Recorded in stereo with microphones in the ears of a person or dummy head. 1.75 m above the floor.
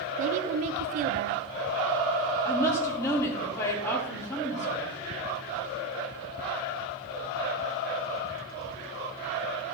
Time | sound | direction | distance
0.2 | a woman speaking | 40° right (ahead or behind) | 0.7 m
2.5 | a woman speaking | 15° left (ahead or behind) | 3.5 m